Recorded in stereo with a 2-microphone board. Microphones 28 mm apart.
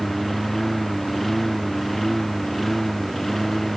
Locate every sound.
0.0 s a lawn mower: 5° left (ahead or behind); by 3.8 s 10° left (ahead or behind)